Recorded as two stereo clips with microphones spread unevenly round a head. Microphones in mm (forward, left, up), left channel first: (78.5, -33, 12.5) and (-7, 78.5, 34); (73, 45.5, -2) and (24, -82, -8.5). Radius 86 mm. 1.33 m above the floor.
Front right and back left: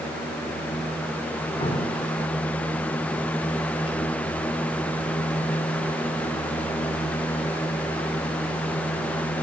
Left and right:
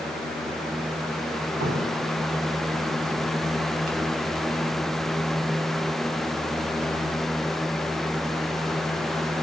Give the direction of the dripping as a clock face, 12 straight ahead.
4 o'clock.